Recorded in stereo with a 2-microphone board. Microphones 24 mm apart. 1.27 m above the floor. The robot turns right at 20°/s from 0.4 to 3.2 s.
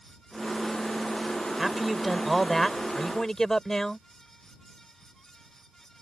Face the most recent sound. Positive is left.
turn(degrees=20)